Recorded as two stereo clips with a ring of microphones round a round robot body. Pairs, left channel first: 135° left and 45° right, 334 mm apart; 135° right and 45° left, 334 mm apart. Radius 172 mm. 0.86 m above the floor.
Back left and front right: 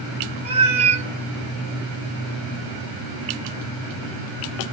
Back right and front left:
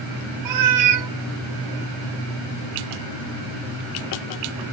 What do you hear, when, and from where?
0.5 s a cat meowing: 25° left, 0.5 m